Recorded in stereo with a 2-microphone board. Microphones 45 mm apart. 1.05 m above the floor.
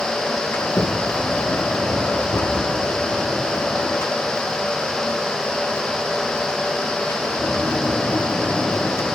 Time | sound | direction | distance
0.5 | a sliding door | 75° left (ahead or behind) | 2.5 m